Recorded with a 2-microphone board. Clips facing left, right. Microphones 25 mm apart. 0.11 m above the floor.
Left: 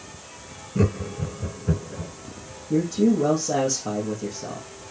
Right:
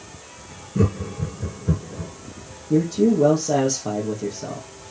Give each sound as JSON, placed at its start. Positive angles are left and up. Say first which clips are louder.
{"t": 0.8, "sound": "laughter", "louder": "right 1 dB", "side_deg": 0, "distance_m": 1.3}
{"t": 2.7, "sound": "a man speaking", "louder": "right 2 dB", "side_deg": -30, "distance_m": 3.5}